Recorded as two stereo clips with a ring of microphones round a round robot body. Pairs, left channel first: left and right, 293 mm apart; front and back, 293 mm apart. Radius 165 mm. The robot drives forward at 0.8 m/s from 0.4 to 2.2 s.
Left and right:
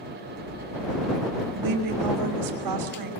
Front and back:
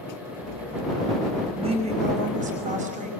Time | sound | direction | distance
1.6 | a woman speaking | 105° right | 5 m